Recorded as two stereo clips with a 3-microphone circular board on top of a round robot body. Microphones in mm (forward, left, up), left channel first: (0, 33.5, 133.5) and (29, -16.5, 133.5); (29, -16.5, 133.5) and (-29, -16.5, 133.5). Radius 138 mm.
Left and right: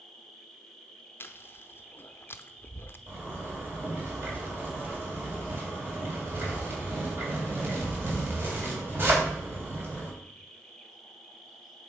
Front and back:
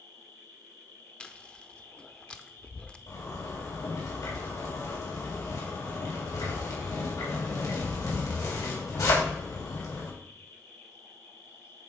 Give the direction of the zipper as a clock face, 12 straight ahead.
12 o'clock.